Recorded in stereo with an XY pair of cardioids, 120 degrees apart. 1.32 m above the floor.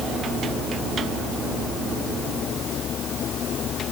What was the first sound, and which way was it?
Only background noise.